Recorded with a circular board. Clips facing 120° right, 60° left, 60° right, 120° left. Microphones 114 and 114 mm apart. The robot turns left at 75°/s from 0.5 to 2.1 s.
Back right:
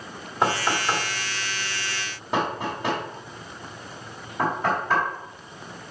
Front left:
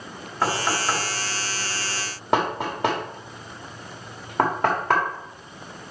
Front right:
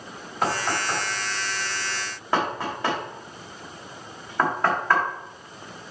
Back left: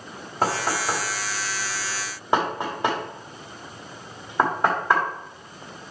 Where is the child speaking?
No child speaking in this recording.